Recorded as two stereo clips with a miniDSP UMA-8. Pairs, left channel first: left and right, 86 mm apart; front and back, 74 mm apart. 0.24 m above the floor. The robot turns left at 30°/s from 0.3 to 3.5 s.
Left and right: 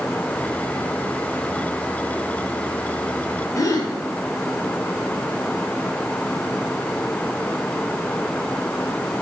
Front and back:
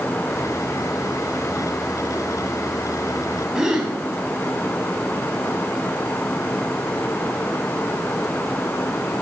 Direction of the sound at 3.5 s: 110° left.